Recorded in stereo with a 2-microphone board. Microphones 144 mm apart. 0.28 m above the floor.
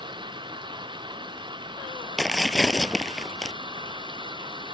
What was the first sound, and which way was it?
Running water, 30° right (ahead or behind).